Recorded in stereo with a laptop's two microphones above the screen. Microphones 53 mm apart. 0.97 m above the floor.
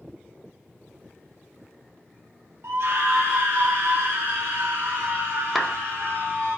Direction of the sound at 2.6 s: 55° right (ahead or behind).